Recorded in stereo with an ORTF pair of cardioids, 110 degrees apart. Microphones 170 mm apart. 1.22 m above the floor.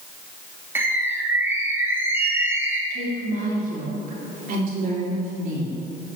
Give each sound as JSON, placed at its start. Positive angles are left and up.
{"t": 0.8, "sound": "a bird", "azimuth_deg": -15, "distance_m": 1.5}
{"t": 2.9, "sound": "a woman speaking", "azimuth_deg": -55, "distance_m": 3.0}